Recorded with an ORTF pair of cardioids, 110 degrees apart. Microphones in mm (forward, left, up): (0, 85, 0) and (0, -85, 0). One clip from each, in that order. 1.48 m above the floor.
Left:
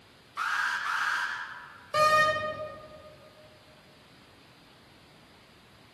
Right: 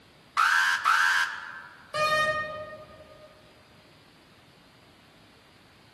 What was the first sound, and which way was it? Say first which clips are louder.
An alarm: right 7 dB; 60° right.